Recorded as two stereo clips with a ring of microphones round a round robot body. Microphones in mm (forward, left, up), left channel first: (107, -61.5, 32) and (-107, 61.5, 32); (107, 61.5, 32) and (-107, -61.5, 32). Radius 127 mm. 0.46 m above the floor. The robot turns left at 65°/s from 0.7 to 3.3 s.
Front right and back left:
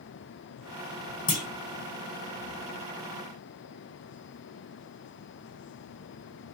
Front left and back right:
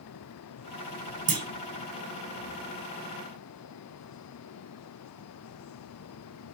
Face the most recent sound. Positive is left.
turn(degrees=130)